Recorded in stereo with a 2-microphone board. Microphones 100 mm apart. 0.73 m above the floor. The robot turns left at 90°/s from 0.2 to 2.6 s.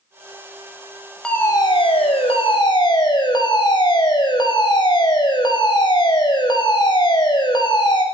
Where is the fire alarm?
175° left, 6.5 m; by 8.0 s 50° left, 6.5 m.